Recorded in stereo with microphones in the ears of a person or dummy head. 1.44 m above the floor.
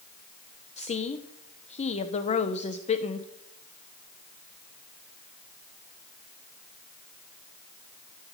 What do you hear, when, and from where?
0.8 s a woman speaking: 30° left (ahead or behind), 0.8 m